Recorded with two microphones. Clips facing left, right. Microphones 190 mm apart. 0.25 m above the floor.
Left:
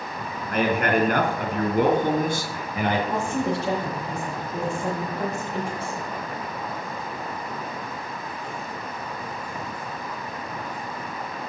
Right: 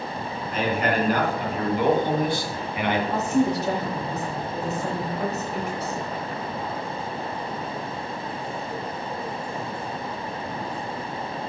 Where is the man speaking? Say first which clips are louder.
Left 2 dB; 65° left (ahead or behind), 3 m; by 3.0 s 40° left (ahead or behind), 2.5 m.